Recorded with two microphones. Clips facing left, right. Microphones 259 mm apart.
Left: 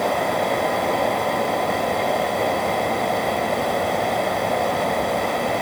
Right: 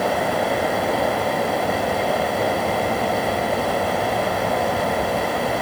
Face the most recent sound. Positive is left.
No sound to turn to.